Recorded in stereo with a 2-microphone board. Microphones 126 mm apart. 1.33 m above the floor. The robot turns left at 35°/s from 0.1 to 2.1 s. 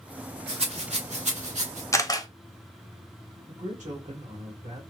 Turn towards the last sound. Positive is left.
turn(degrees=-70)  # may be behind; listen again after turning